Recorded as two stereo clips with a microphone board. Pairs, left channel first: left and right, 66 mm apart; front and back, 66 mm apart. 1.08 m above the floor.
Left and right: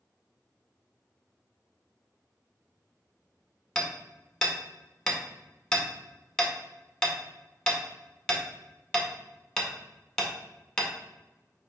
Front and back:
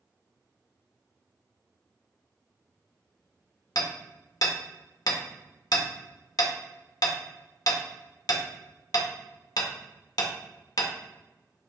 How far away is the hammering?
About 1.6 m.